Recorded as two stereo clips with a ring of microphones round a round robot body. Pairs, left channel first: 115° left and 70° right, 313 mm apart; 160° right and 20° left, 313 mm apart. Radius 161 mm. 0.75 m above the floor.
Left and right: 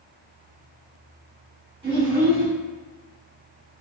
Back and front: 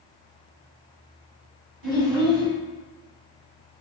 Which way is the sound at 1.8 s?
5° left.